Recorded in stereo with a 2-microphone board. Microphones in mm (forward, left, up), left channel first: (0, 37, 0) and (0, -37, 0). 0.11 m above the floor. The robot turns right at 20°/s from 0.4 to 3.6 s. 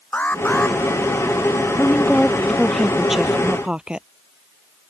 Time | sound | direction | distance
0.1 | an alarm | 20° left (ahead or behind) | ?
1.8 | a woman speaking | 160° left | ?